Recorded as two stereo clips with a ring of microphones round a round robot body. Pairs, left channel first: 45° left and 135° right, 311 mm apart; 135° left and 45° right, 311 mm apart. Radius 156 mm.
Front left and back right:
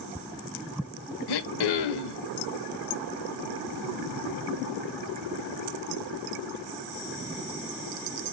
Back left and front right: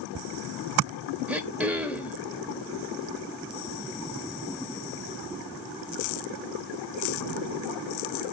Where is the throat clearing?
40° left, 0.9 m.